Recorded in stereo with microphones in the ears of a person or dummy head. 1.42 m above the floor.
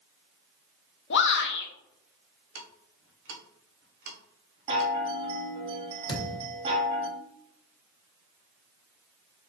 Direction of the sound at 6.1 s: 35° left (ahead or behind).